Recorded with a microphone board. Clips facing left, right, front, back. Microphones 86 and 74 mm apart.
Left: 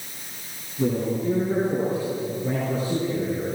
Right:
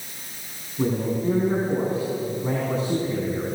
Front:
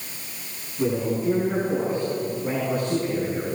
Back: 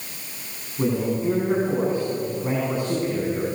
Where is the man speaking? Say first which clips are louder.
Even, back 1 dB; 125° right, 9.5 m; by 3.5 s 115° right, 9.5 m.